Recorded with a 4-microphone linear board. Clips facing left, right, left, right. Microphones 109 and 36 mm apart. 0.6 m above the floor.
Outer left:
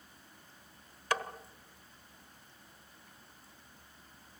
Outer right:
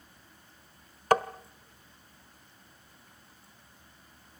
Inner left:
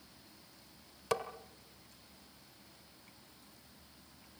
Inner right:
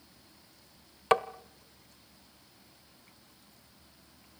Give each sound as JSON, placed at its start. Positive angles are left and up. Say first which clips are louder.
{"t": 1.1, "sound": "tapping", "louder": "outer right 10 dB, inner right 9 dB", "side_deg": -50, "distance_m": 0.9}